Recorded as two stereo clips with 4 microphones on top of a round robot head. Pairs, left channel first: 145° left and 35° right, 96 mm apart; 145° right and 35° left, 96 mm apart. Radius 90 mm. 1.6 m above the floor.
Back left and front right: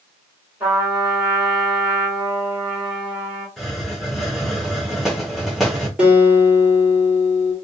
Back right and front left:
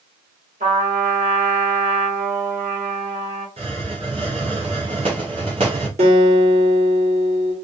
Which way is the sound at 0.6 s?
35° left.